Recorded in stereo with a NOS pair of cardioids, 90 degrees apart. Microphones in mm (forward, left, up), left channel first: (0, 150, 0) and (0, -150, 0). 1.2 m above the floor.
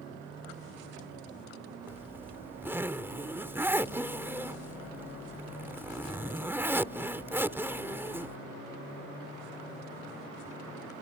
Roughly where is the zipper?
Ahead.